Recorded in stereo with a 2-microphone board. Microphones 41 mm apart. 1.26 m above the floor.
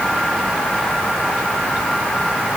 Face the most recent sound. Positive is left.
No sound to turn to.